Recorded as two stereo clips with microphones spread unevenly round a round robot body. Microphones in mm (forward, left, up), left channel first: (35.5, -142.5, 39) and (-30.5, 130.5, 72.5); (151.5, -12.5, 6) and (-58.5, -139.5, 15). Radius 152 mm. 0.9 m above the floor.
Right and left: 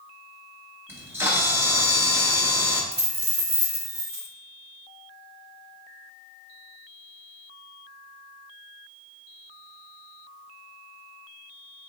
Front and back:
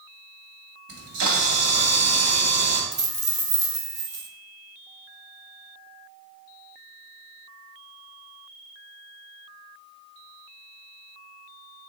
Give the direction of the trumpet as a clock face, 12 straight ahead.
I don't hear a trumpet.